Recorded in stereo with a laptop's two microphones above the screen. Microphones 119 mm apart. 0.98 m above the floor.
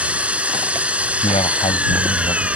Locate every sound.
0.0 s an engine running: 10° right (ahead or behind)
1.2 s a man speaking: 55° left (ahead or behind)